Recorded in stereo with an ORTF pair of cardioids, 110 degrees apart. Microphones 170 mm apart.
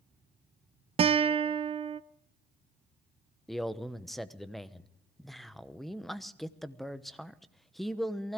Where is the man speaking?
Straight ahead, 1.0 m.